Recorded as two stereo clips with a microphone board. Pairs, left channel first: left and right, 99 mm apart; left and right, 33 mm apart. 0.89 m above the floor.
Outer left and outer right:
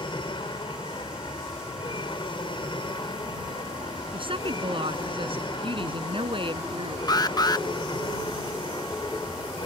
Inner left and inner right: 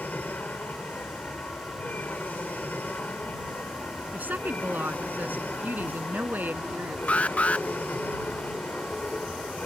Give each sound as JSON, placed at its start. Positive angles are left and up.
{"t": 0.0, "sound": "an aircraft", "side_deg": 55}
{"t": 4.1, "sound": "a woman speaking", "side_deg": -60}
{"t": 7.1, "sound": "an alarm", "side_deg": 45}